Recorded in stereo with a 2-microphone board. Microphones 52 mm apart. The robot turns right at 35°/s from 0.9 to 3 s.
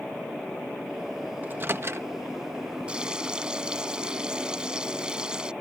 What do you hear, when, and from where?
1.4 s a microwave: 35° right (ahead or behind); by 2.1 s 60° right (ahead or behind)
2.9 s frying: 20° right (ahead or behind); by 5.5 s 15° right (ahead or behind)